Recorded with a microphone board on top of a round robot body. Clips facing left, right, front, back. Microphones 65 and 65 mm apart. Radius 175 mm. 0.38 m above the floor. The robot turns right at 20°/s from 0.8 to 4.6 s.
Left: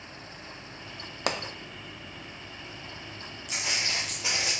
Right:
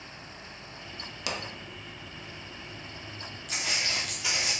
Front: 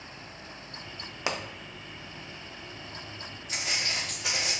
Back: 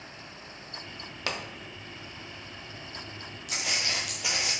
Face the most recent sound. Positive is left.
turn(degrees=135)